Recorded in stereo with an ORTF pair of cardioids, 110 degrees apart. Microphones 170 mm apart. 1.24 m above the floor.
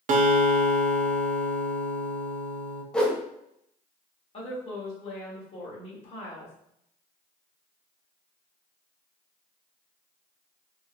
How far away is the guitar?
About 0.8 m.